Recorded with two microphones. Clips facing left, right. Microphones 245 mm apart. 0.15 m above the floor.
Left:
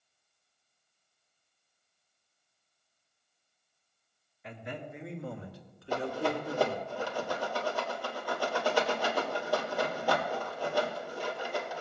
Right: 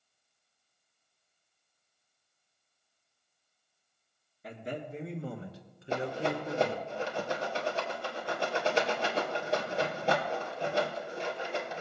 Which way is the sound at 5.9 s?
25° right (ahead or behind).